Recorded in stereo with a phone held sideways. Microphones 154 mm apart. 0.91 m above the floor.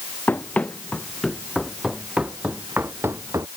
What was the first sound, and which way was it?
Running footsteps, 10° left (ahead or behind).